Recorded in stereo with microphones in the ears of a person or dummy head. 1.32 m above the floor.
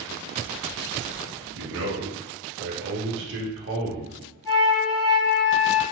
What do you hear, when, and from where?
1.6 s a man speaking: 65° right (ahead or behind), 0.8 m
4.4 s a flute: 15° left (ahead or behind), 1.4 m